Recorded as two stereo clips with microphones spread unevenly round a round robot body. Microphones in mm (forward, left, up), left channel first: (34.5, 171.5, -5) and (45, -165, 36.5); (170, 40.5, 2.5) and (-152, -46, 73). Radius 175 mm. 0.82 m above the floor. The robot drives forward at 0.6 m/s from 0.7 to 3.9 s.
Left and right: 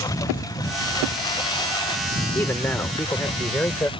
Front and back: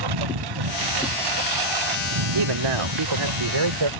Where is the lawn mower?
175° left; by 4.0 s 170° left.